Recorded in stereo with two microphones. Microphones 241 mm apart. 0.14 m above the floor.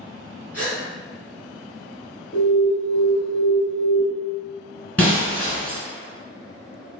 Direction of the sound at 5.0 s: 5° left (ahead or behind).